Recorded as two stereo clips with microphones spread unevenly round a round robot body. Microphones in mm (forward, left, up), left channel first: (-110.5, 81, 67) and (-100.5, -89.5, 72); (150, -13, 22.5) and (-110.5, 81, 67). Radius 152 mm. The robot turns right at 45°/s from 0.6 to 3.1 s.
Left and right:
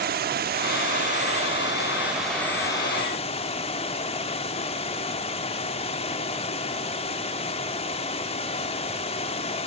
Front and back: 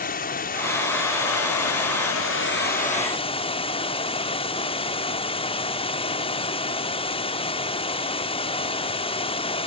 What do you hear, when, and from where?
0.0 s running water: 70° right, 0.8 m; by 9.7 s 45° left, 0.8 m